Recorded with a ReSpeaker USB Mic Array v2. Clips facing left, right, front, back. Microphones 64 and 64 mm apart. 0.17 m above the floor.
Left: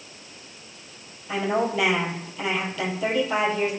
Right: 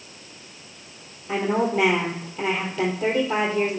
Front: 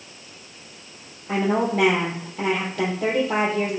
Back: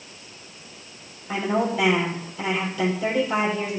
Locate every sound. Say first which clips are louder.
1.3 s a woman speaking: right 2 dB, front 2 dB; 35° right, 3.5 m